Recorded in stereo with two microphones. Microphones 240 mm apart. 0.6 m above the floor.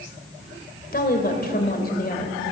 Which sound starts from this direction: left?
A woman speaking, at 0.9 s.